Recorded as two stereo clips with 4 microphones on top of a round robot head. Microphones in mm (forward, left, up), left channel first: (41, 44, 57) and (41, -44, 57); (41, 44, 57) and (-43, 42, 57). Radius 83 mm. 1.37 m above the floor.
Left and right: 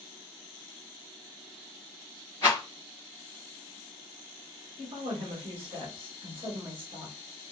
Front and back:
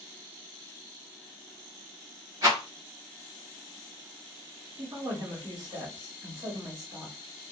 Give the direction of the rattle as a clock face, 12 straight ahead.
7 o'clock.